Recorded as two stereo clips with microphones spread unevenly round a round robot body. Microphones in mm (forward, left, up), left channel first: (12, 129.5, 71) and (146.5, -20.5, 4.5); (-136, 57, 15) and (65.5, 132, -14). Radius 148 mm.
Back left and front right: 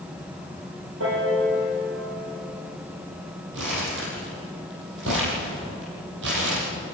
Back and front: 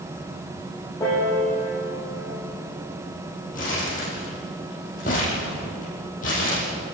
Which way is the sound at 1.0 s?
80° right.